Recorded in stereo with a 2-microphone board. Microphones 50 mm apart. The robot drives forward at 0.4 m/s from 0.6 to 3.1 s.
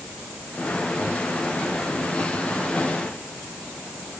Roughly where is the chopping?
No chopping in this recording.